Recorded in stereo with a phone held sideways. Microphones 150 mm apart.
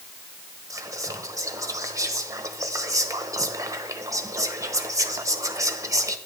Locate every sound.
0.7 s whispering: 20° right (ahead or behind), 1.1 m